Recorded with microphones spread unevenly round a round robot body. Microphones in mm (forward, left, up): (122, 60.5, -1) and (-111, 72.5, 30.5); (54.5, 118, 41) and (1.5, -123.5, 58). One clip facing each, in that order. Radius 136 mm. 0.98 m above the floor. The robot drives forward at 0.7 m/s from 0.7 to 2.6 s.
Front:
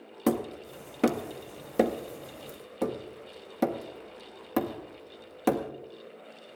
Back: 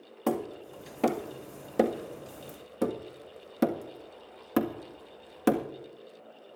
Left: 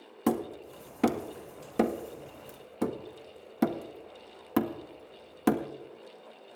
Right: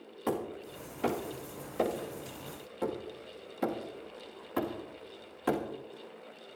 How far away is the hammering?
About 1.9 m.